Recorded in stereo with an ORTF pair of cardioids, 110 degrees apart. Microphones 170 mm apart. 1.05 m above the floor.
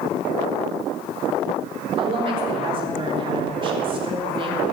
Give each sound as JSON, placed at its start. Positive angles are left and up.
{"t": 2.0, "sound": "a woman speaking", "azimuth_deg": -30, "distance_m": 3.5}